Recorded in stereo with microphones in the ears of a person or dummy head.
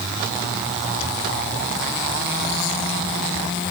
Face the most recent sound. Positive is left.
No sound to turn to.